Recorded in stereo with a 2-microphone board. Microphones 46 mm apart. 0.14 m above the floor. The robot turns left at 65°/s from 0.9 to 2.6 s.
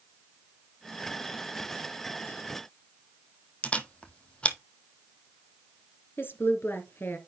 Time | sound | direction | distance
3.6 | a camera shutter | 25° left (ahead or behind) | 0.9 m
6.2 | a woman speaking | 50° left (ahead or behind) | 2 m